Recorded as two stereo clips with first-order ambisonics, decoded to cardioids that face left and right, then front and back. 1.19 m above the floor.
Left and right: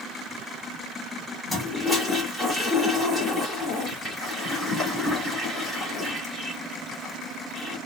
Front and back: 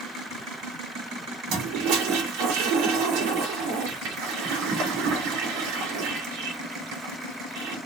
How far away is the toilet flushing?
About 2 m.